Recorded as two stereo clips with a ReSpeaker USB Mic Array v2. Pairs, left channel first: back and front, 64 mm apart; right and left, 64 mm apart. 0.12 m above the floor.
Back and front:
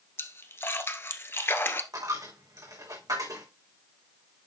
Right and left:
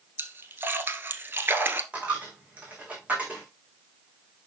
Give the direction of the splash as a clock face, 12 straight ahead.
7 o'clock.